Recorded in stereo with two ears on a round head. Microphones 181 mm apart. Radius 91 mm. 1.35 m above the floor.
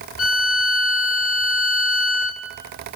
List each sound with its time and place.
0.2 s a violin: 75° left (ahead or behind), 2.5 m